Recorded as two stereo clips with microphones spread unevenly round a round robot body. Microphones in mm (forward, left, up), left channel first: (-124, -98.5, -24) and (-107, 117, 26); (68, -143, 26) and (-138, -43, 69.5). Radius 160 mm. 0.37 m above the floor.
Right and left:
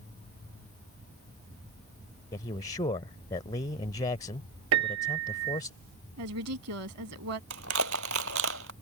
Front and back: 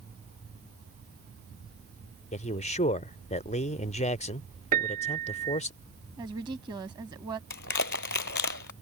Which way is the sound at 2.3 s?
45° right.